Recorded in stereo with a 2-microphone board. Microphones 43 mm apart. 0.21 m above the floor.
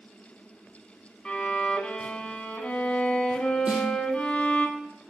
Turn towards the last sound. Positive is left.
turn(degrees=-25)  # may be behind; listen again after turning